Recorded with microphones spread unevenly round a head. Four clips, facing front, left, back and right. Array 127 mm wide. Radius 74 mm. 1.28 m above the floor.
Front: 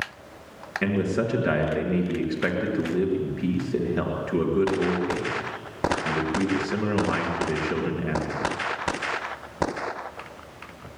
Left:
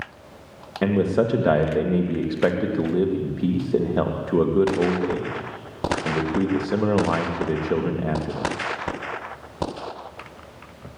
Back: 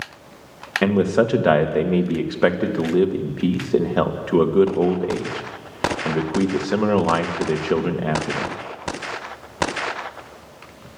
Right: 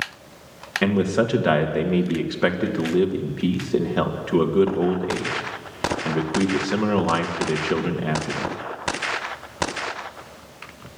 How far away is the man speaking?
About 2.5 m.